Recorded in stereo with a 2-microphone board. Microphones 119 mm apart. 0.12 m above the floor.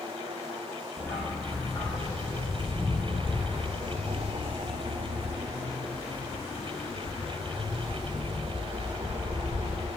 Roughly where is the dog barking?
Centre.